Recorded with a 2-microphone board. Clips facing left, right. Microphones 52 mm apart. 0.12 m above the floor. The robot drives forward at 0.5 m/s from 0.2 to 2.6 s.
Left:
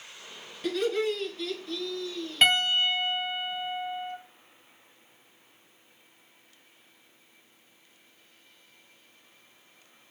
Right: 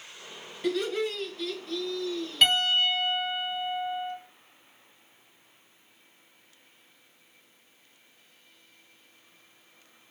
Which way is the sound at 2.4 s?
25° left (ahead or behind).